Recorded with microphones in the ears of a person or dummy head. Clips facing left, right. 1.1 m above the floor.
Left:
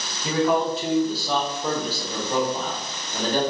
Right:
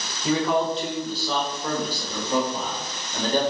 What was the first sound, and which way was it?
A man speaking, 15° left (ahead or behind).